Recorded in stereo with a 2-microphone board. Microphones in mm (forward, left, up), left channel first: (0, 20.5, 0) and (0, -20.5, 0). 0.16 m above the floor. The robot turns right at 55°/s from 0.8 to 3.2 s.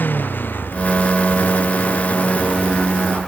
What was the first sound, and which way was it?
A motorcycle, 50° left (ahead or behind).